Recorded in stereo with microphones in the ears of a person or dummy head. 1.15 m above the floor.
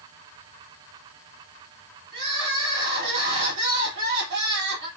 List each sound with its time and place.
2.1 s crying: 70° right (ahead or behind), 2.5 m